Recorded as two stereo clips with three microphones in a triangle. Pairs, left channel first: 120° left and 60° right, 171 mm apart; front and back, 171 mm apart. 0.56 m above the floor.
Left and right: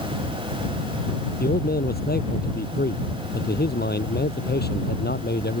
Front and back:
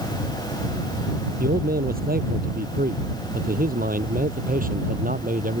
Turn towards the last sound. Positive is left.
turn(degrees=140)